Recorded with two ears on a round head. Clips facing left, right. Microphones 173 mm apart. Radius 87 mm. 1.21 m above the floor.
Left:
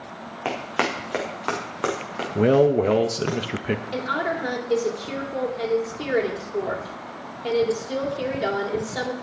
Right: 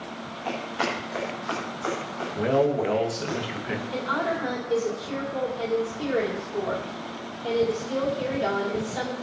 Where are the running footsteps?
75° left (ahead or behind), 5 m.